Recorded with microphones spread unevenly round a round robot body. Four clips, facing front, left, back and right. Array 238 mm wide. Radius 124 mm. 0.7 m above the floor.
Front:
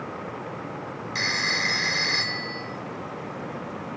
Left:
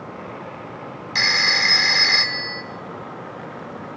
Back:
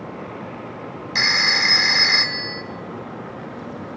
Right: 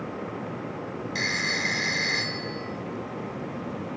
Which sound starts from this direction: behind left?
A phone ringing, at 1.1 s.